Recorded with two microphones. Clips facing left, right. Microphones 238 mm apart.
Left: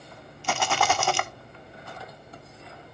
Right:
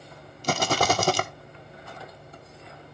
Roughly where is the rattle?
Right.